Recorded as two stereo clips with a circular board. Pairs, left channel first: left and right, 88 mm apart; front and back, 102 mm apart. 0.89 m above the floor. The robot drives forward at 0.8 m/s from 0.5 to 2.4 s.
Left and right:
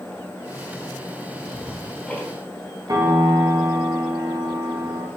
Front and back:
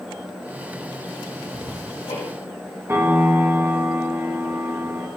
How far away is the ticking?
About 2 m.